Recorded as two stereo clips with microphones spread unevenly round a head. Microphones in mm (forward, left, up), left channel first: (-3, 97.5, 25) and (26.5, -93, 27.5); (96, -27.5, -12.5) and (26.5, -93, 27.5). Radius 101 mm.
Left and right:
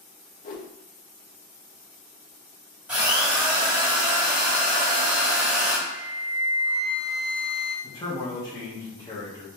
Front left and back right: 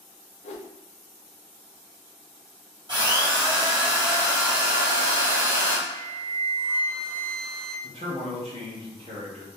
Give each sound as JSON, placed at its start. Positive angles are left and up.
{"t": 0.4, "sound": "a whoosh", "azimuth_deg": 50, "distance_m": 0.5}
{"t": 2.9, "sound": "a drill", "azimuth_deg": -165, "distance_m": 1.7}
{"t": 5.9, "sound": "a flute", "azimuth_deg": 150, "distance_m": 1.7}
{"t": 7.8, "sound": "a man speaking", "azimuth_deg": 170, "distance_m": 0.9}